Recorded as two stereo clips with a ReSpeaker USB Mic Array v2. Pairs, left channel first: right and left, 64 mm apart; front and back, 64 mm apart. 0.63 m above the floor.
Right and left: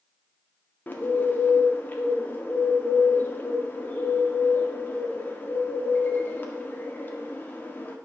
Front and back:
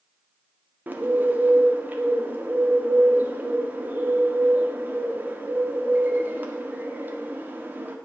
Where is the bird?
135° right, 1.6 m.